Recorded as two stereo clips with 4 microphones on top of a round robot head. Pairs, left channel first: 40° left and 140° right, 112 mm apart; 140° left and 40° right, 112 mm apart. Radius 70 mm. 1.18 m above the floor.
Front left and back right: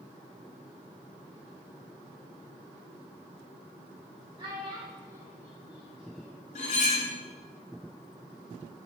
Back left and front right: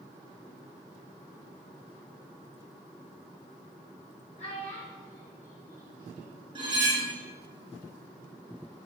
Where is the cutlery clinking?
10° left, 1.1 m.